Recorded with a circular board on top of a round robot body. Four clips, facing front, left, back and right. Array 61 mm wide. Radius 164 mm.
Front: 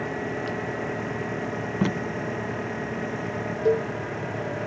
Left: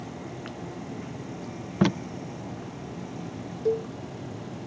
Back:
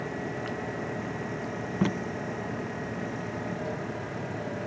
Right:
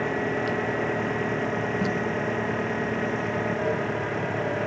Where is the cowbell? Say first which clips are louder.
Even, front 12 dB; 20° left.